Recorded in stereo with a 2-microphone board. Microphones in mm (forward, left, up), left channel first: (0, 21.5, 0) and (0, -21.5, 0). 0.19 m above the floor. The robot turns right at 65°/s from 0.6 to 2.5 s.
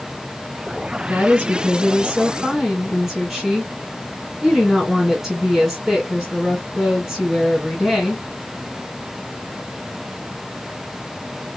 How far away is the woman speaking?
About 1.9 m.